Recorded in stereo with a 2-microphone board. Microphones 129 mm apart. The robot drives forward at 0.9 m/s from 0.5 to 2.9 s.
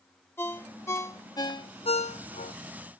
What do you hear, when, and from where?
0.4 s a ringtone: 15° left (ahead or behind); by 2.5 s 70° left (ahead or behind)